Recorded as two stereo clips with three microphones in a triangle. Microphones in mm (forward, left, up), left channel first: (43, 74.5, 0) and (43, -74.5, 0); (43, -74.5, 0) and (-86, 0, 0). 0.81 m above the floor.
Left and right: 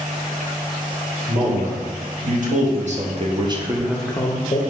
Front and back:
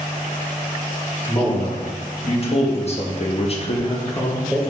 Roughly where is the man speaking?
Right.